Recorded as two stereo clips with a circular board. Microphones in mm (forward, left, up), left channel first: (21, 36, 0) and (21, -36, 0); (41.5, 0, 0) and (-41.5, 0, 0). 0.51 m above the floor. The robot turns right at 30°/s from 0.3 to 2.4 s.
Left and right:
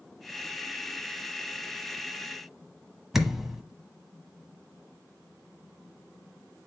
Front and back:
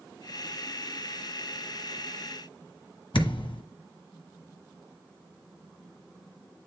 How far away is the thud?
About 1.2 m.